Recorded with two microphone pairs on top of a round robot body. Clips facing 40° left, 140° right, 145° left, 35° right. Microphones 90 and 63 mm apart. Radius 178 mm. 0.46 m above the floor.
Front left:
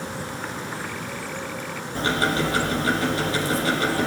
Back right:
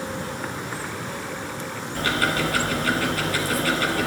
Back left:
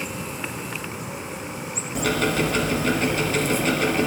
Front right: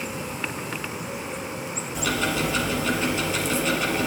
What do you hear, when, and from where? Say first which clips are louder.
1.9 s ticking: front left 1 dB, back left 3 dB; 105° left, 4 m